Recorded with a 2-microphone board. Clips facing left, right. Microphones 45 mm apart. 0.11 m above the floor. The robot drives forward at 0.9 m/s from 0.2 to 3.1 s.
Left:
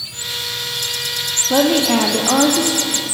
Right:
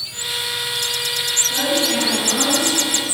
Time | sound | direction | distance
1.5 | a woman speaking | 65° left (ahead or behind) | 3.5 m